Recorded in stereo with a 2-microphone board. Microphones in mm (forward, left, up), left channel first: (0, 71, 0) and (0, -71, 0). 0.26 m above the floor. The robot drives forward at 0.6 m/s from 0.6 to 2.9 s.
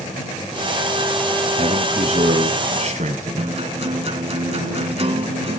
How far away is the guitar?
About 0.8 m.